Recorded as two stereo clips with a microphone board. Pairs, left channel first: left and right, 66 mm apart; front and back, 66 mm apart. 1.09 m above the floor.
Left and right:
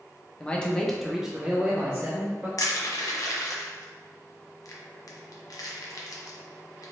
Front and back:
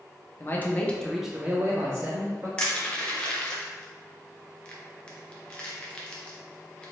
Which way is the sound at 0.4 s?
25° left.